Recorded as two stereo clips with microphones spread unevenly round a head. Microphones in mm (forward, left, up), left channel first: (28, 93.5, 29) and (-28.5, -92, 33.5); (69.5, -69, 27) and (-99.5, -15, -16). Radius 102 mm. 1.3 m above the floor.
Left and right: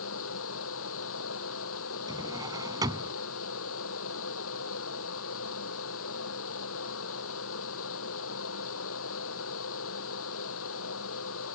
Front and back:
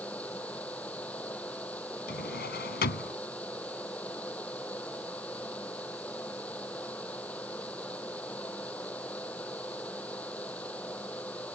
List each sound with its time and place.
0.0 s a fan: 65° left
2.1 s a drawer: 35° right